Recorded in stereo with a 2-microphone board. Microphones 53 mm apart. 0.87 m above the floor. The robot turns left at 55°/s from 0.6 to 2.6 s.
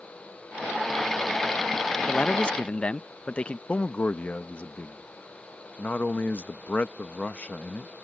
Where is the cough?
I don't hear a cough.